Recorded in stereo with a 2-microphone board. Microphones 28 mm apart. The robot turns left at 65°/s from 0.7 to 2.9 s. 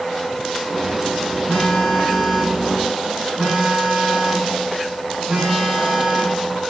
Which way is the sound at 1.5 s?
60° left.